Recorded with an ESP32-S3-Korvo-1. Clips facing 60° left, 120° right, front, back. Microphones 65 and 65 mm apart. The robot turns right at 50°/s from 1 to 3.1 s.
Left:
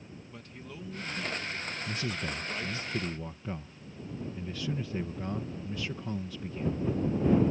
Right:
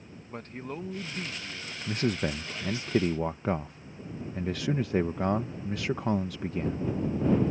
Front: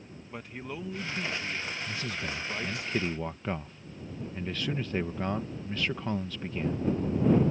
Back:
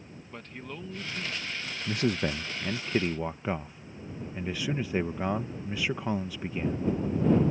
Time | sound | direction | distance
0.3 | a man speaking | 80° right | ?
1.9 | a man speaking | 165° right | ?